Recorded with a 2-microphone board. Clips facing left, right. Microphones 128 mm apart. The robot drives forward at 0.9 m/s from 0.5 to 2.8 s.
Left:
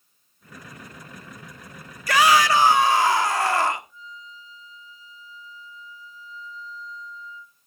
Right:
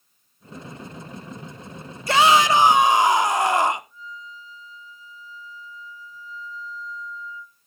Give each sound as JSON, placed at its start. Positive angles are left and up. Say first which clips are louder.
{"t": 2.1, "sound": "a shout", "louder": "right 1 dB", "side_deg": -25, "distance_m": 0.9}
{"t": 3.9, "sound": "a flute", "louder": "right 3 dB", "side_deg": -50, "distance_m": 1.8}